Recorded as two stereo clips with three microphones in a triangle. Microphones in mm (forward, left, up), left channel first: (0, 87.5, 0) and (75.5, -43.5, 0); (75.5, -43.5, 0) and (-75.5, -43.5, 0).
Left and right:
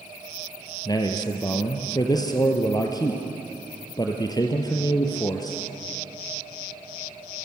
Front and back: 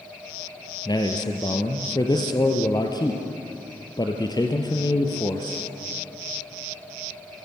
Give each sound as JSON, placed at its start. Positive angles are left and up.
{"t": 0.8, "sound": "a man speaking", "azimuth_deg": 60, "distance_m": 2.5}